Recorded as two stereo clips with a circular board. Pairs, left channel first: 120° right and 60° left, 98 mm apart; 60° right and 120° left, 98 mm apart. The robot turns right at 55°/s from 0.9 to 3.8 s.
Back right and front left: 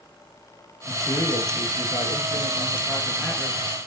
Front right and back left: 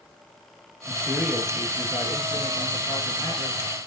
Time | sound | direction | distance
0.9 | a man speaking | 175° right | 3.5 m